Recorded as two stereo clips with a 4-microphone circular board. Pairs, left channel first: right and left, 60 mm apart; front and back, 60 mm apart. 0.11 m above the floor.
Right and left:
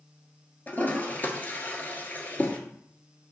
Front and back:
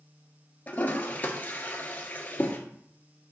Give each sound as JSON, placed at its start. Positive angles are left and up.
{"t": 0.7, "sound": "a toilet flushing", "azimuth_deg": -50, "distance_m": 1.3}